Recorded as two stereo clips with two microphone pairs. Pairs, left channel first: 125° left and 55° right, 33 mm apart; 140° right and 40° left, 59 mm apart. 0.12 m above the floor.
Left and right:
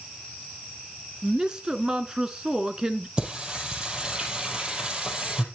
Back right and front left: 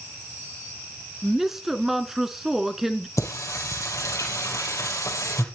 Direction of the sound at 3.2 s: 120° right.